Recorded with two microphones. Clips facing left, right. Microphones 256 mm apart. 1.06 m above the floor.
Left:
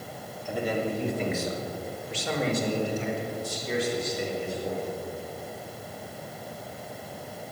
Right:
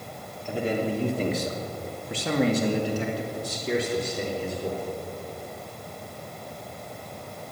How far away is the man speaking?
About 3 m.